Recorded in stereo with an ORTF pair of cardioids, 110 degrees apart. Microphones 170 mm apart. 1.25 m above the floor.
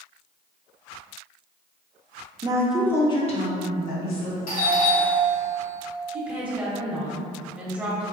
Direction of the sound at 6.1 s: 5° right.